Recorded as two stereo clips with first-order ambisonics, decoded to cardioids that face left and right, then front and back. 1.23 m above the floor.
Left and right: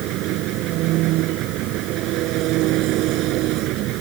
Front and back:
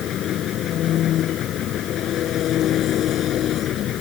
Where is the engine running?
55° right.